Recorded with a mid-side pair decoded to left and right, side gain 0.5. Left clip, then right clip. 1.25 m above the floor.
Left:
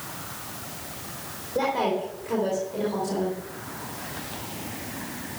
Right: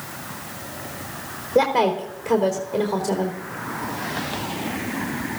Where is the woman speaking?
55° right, 4 m.